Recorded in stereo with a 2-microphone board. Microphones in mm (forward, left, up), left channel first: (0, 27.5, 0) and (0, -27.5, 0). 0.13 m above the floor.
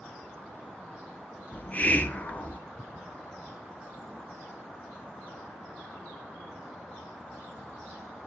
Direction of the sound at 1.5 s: 30° left (ahead or behind).